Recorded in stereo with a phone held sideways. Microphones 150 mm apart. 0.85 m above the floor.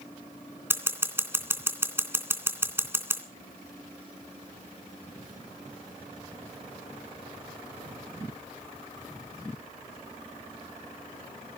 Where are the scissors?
15° right (ahead or behind), 2.5 m.